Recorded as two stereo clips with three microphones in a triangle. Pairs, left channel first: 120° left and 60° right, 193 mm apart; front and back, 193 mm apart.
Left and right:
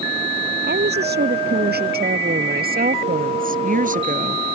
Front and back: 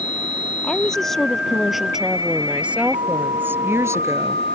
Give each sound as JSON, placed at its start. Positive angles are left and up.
{"t": 0.6, "sound": "a woman speaking", "azimuth_deg": -85}